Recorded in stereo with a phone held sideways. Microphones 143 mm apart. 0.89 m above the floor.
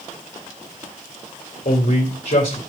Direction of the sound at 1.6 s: 85° left.